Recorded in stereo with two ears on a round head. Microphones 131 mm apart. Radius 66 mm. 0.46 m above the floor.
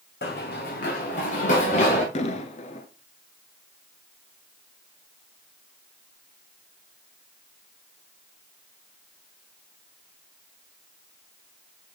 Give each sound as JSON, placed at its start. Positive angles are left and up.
{"t": 0.2, "sound": "running footsteps", "side_deg": 70, "distance_m": 1.8}
{"t": 2.1, "sound": "an explosion", "side_deg": 45, "distance_m": 1.0}